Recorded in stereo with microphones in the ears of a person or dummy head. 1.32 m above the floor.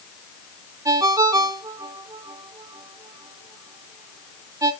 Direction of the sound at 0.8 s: 15° right (ahead or behind).